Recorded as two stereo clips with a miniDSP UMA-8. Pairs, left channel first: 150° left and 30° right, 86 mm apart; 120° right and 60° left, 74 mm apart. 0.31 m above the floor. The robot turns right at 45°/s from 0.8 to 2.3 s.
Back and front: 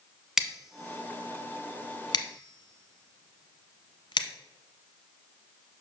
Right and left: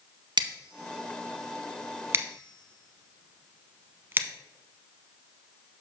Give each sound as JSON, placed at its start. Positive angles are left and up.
{"t": 0.4, "sound": "scissors", "azimuth_deg": 55, "distance_m": 0.8}